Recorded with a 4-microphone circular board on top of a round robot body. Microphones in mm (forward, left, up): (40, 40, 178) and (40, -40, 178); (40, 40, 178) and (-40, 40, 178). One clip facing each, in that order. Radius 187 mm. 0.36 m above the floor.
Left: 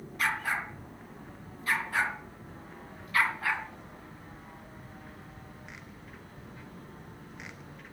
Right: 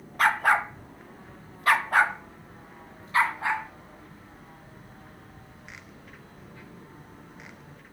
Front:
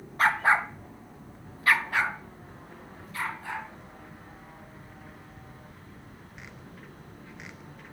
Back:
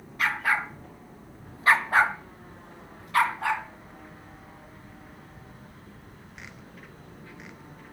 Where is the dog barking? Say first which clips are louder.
Right 9 dB, front 3 dB; 55° right, 1.5 m; by 3.6 s 160° right, 2.5 m.